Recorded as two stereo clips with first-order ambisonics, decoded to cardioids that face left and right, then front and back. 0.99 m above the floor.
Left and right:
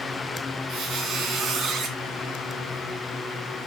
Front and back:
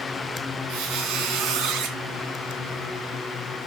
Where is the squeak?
145° right, 2.5 m.